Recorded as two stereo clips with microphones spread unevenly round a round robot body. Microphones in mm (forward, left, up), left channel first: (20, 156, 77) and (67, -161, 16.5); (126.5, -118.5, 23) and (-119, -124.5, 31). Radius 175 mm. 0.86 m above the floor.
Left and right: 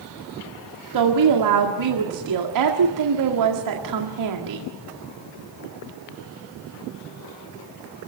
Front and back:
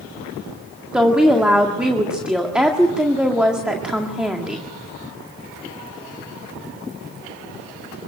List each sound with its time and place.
0.9 s a woman speaking: 90° right, 2 m